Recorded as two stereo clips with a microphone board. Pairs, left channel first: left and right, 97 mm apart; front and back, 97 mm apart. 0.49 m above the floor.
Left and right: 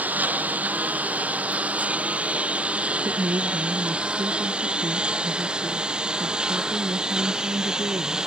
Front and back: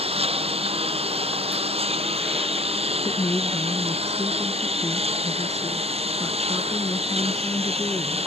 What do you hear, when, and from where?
0.0 s a lawn mower: 165° right; by 8.3 s 175° right
3.0 s a woman speaking: 55° right